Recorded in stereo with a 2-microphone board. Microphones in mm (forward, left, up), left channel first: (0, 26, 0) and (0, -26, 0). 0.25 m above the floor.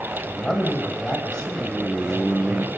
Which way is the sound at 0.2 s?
10° left (ahead or behind).